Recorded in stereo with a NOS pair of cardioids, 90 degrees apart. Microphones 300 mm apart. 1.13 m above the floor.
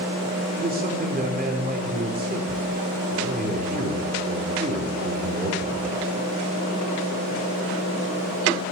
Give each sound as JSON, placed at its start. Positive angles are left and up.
{"t": 0.6, "sound": "a man speaking", "azimuth_deg": -30, "distance_m": 3.5}